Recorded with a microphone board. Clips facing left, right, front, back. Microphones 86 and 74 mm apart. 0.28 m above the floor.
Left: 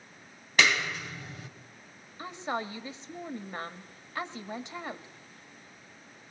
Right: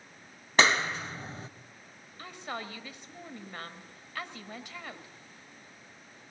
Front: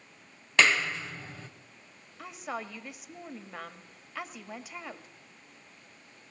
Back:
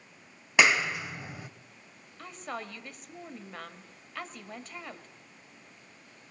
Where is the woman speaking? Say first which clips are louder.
Left 5 dB, front 1 dB; 75° left, 1.2 m.